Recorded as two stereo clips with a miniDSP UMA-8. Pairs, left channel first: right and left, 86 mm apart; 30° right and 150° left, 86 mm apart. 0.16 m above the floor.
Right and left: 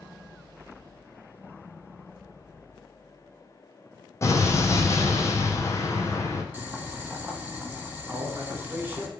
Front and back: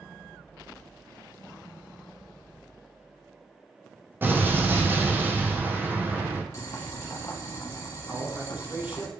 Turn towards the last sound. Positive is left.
turn(degrees=105)